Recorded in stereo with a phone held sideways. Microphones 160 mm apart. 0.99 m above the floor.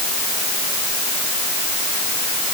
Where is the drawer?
No drawer in this recording.